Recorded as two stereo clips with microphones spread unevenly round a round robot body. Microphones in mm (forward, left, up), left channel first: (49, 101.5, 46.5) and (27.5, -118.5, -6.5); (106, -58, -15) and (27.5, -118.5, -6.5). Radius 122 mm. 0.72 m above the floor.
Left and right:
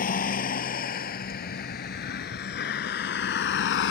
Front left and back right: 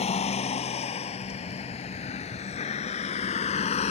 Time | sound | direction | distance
0.0 | a vehicle | 35° left | ?